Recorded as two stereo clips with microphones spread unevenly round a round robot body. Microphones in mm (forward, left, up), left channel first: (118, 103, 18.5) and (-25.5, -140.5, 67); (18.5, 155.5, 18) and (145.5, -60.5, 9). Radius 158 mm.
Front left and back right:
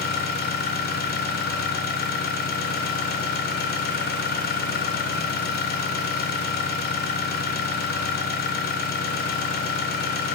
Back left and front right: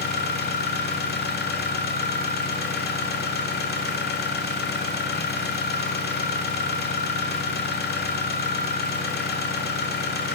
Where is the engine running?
85° left, 1.4 m.